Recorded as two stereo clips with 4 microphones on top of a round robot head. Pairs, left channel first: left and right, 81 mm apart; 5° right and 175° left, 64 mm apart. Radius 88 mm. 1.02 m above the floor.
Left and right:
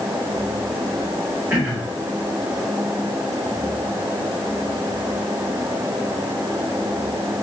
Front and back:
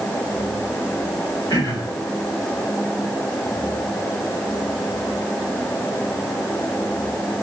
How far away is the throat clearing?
About 6.5 m.